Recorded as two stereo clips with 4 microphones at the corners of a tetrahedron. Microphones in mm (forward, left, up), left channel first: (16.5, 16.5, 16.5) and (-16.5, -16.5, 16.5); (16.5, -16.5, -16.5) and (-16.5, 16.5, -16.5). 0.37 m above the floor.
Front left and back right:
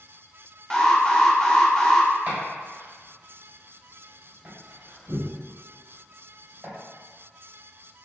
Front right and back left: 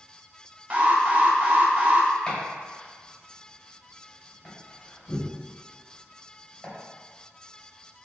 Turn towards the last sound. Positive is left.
turn(degrees=-115)